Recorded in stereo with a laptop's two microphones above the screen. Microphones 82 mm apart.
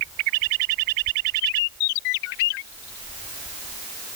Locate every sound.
Only background noise.